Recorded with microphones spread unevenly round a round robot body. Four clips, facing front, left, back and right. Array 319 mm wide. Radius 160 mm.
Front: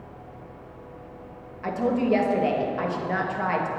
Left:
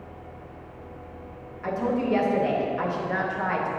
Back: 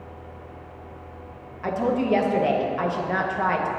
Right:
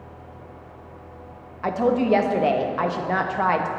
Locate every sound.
1.6 s a woman speaking: 100° right, 0.7 m